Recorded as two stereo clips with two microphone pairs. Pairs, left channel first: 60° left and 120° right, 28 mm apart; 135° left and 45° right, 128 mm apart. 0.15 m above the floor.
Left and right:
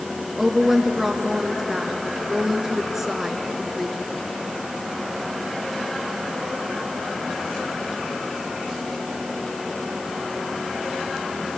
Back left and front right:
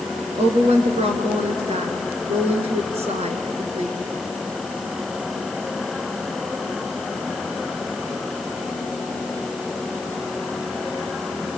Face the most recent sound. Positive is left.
turn(degrees=-40)